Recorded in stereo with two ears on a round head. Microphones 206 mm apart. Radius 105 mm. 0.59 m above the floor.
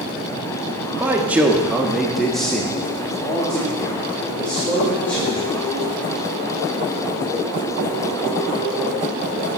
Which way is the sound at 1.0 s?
10° right (ahead or behind).